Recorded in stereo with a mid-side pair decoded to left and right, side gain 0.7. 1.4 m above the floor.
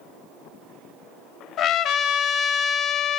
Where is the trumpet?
50° left, 0.6 m.